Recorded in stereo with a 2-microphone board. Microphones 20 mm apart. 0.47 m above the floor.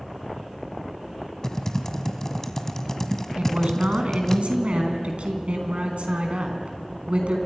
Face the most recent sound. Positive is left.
turn(degrees=-80)